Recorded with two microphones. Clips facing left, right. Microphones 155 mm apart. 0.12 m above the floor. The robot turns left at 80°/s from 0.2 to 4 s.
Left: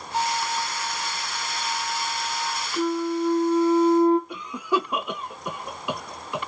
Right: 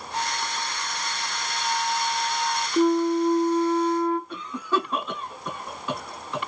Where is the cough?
15° left (ahead or behind), 1.1 m.